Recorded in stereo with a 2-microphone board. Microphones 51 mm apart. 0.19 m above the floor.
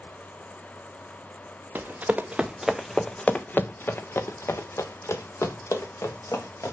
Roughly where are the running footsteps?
Right.